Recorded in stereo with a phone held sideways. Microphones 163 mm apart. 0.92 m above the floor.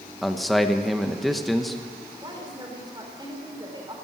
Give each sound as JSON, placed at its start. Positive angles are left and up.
{"t": 0.2, "sound": "a man speaking", "side_deg": 0, "distance_m": 0.8}
{"t": 2.2, "sound": "a woman speaking", "side_deg": -25, "distance_m": 4.0}